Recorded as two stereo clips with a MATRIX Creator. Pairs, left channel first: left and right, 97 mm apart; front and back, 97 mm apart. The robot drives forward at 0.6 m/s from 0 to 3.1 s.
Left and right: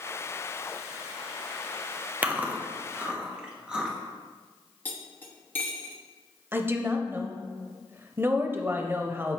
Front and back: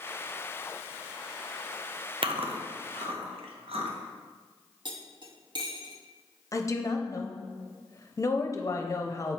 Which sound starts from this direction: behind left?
Cutlery clinking, at 4.8 s.